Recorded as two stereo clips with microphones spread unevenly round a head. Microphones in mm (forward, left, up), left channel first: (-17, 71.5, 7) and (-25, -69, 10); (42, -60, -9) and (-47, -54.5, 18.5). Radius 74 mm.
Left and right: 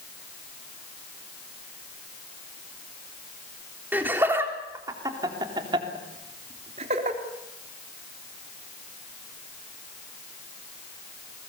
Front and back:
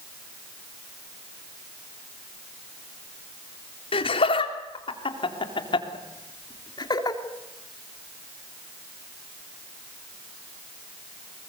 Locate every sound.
3.9 s laughter: 15° right, 3.5 m; by 7.2 s 45° right, 3 m